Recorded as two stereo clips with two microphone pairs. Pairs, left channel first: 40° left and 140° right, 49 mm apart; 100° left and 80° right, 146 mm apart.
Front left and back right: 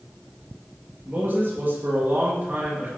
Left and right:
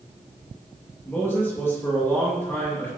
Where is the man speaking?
175° left, 2 m.